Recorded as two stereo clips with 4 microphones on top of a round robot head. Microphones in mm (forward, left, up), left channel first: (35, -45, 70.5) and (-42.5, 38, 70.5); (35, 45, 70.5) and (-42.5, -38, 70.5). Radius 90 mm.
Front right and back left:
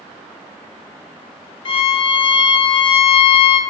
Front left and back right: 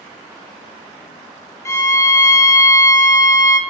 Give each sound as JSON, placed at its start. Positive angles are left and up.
{"t": 1.6, "sound": "a violin", "azimuth_deg": -15, "distance_m": 0.6}